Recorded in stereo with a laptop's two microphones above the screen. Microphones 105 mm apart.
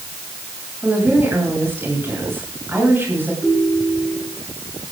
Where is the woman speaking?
20° right (ahead or behind), 7.5 m.